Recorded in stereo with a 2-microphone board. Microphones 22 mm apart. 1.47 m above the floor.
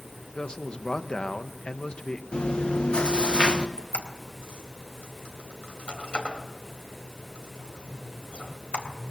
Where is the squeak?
65° left (ahead or behind), 3 m.